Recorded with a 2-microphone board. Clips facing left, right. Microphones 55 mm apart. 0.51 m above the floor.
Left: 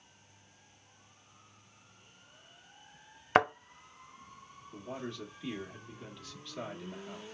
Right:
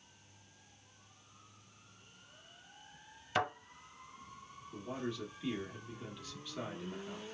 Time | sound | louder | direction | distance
3.4 | a thud | left 8 dB | 60° left (ahead or behind) | 0.6 m
4.7 | a man speaking | right 1 dB | 5° right (ahead or behind) | 0.9 m